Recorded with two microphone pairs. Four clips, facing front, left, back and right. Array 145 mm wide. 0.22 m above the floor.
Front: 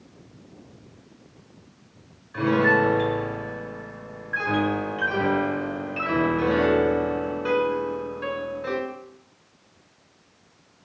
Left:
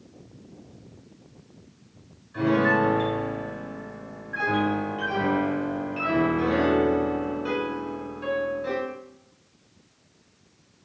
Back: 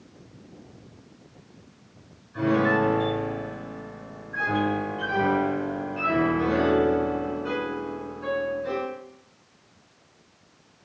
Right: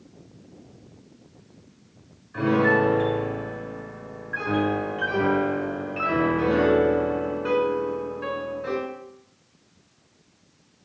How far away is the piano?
About 1.4 m.